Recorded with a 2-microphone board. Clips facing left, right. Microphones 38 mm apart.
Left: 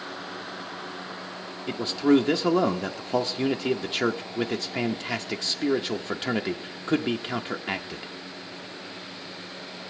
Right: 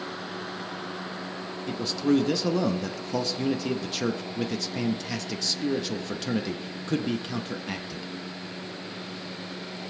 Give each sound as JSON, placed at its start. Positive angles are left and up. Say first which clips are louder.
{"t": 1.7, "sound": "a man speaking", "louder": "left 3 dB", "side_deg": 30, "distance_m": 0.7}